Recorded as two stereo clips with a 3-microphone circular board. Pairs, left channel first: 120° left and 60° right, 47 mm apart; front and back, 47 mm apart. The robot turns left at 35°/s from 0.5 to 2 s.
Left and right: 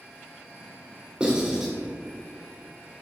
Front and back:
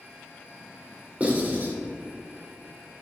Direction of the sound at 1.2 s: 125° right.